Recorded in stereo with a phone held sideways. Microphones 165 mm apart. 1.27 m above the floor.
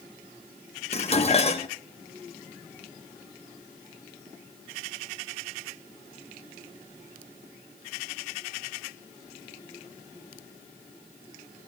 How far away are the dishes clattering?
About 0.7 m.